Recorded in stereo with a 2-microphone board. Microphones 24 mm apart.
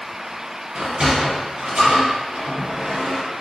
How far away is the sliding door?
About 2.0 m.